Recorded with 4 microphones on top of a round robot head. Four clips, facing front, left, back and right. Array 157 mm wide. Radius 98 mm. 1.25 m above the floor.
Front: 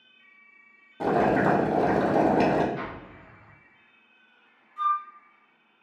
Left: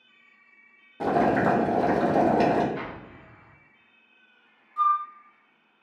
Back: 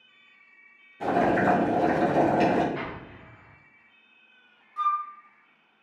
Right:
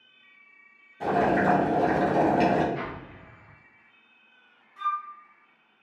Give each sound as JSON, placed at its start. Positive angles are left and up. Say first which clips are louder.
{"t": 1.0, "sound": "boiling", "louder": "left 1 dB, front 1 dB", "azimuth_deg": 50, "distance_m": 0.7}
{"t": 2.8, "sound": "an explosion", "louder": "right 1 dB, even", "azimuth_deg": 160, "distance_m": 1.4}
{"t": 4.8, "sound": "a flute", "louder": "left 7 dB, even", "azimuth_deg": 130, "distance_m": 0.7}